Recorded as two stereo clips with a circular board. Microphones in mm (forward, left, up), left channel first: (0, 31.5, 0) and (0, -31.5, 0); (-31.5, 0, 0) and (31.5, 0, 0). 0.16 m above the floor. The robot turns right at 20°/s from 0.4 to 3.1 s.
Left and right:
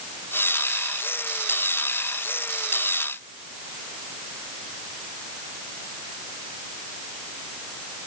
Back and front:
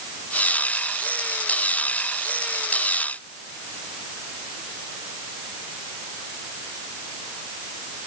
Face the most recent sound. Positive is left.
No sound to turn to.